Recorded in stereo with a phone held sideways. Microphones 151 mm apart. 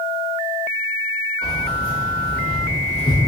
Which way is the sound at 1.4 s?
80° left.